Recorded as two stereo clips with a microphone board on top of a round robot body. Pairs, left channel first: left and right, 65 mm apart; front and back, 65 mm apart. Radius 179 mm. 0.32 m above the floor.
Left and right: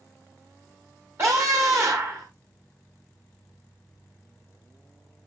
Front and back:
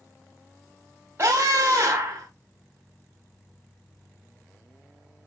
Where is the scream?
135° right, 2.5 m.